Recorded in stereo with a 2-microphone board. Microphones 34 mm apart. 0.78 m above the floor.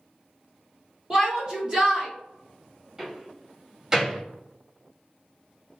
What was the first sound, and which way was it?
A shout, 25° right (ahead or behind).